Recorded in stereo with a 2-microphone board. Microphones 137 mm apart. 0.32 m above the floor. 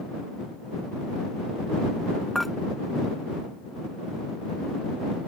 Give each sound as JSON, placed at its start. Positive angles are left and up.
{"t": 2.4, "sound": "dishes clattering", "side_deg": 0}